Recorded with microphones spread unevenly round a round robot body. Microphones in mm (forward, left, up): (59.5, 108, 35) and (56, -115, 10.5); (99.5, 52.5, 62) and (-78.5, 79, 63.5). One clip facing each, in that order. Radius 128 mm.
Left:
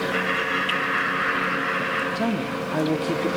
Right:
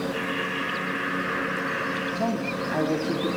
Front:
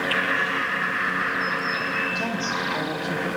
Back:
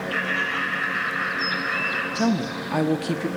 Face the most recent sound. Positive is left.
turn(degrees=165)